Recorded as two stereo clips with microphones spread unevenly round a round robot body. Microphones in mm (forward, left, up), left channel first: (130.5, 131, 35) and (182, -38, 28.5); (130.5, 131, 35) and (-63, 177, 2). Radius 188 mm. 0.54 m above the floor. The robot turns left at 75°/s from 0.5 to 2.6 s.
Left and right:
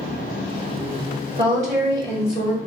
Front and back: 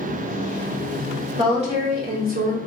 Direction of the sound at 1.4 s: 130° right.